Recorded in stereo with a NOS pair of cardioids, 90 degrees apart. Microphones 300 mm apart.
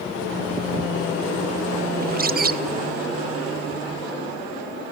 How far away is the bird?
About 0.7 m.